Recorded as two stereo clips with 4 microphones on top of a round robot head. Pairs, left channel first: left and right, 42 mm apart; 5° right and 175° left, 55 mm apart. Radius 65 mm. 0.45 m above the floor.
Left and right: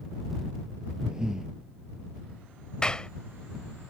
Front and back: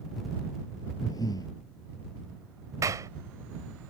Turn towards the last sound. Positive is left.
turn(degrees=160)